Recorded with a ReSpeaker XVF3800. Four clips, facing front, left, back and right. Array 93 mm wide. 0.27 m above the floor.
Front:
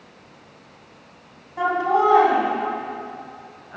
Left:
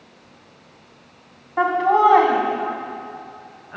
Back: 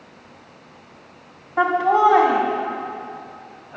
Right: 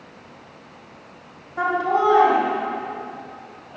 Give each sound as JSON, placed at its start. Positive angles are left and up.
{"t": 1.6, "sound": "laughter", "azimuth_deg": 135, "distance_m": 2.0}